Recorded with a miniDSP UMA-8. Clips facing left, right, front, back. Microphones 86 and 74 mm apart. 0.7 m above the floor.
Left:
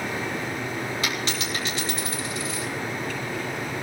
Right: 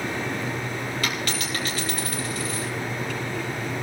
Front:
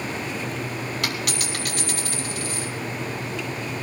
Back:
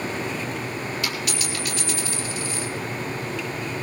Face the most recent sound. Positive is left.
turn(degrees=25)